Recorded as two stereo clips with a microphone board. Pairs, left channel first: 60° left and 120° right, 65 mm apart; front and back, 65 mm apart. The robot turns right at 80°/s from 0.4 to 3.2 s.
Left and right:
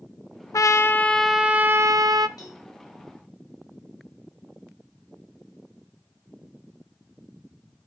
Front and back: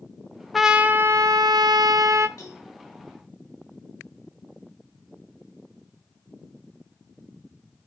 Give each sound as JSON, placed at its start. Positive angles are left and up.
{"t": 0.5, "sound": "a trumpet", "azimuth_deg": 90, "distance_m": 0.7}
{"t": 2.4, "sound": "a cowbell", "azimuth_deg": 35, "distance_m": 5.0}